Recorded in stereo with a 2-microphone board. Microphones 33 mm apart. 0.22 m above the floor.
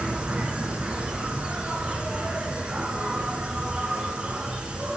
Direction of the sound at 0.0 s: 25° right (ahead or behind).